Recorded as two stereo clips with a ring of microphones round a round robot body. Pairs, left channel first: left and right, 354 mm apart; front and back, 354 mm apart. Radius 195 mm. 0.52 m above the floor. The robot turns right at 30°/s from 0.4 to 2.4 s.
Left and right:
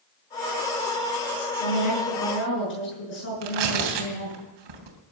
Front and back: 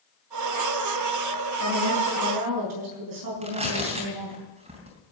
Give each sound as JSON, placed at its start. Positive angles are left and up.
{"t": 1.6, "sound": "a woman speaking", "azimuth_deg": 130, "distance_m": 8.0}
{"t": 3.4, "sound": "tearing paper", "azimuth_deg": -105, "distance_m": 3.0}